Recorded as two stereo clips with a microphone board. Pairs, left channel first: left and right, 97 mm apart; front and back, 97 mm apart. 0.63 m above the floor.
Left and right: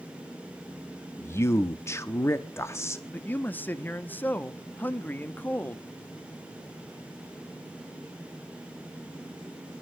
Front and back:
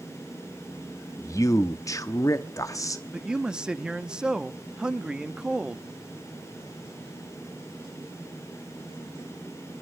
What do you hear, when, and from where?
1.2 s a man speaking: 40° left, 0.7 m
3.1 s a man speaking: 115° left, 0.6 m